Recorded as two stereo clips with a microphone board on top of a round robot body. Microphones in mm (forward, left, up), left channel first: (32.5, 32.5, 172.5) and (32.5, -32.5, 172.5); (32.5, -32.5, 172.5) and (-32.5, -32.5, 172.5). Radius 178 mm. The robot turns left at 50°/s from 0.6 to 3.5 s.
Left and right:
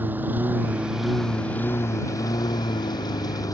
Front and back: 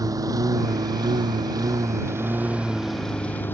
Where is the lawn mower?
155° right; by 3.5 s 60° left.